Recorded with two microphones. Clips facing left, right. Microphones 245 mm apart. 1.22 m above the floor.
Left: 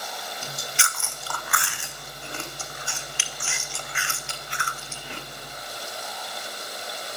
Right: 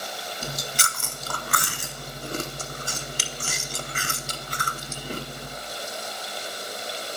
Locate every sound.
0.4 s chewing: 40° right (ahead or behind), 0.5 m